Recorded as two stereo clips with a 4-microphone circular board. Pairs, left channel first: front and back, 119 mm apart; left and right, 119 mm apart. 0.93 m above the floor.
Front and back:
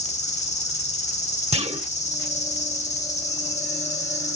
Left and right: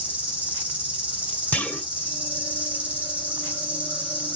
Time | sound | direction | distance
0.0 | an insect | 10° right | 5 m
1.5 | a clunk | 165° left | 1.1 m